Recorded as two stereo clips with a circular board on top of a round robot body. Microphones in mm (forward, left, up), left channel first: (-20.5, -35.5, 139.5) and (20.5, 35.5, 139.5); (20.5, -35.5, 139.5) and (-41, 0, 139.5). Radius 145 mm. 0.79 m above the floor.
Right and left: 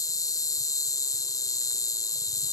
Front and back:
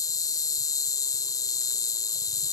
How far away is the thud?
I don't hear a thud.